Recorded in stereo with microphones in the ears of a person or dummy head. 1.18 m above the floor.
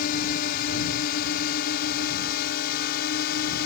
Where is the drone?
50° left (ahead or behind); by 3.7 s 55° left (ahead or behind).